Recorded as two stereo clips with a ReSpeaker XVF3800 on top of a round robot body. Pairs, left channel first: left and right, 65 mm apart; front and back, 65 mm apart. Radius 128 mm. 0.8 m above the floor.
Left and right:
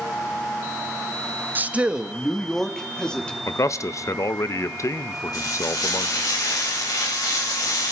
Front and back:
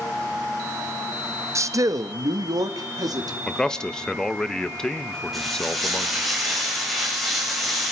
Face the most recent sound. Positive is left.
turn(degrees=90)